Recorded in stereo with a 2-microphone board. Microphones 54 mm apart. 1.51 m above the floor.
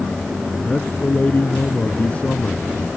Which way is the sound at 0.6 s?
25° left (ahead or behind).